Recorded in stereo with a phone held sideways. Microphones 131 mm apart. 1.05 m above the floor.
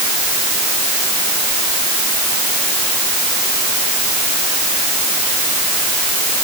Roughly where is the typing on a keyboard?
I don't hear typing on a keyboard.